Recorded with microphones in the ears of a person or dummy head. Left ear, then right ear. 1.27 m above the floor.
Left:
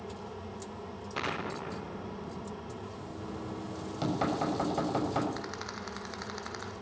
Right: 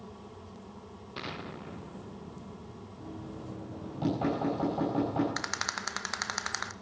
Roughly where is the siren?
I don't hear a siren.